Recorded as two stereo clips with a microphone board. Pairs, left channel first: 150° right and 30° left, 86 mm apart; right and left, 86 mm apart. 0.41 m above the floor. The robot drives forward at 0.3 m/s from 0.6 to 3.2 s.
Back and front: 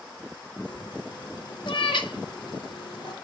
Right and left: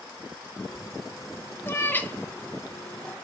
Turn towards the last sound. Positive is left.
turn(degrees=-165)